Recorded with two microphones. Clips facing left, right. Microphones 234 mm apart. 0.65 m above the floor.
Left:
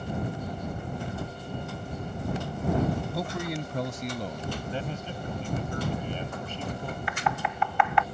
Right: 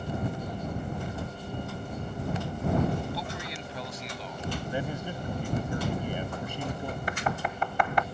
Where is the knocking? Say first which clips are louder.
Left 1 dB; 40° right (ahead or behind).